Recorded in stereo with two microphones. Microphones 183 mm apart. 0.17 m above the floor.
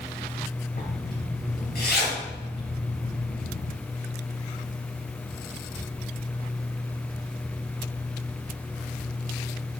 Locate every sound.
0.8 s a zipper: 60° left (ahead or behind), 3 m